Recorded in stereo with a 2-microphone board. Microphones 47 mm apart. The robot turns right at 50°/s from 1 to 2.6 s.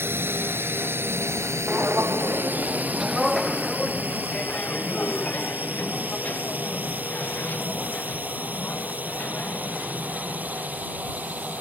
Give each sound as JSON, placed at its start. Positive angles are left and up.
{"t": 0.0, "sound": "a drone", "side_deg": -55}
{"t": 1.7, "sound": "footsteps", "side_deg": -35}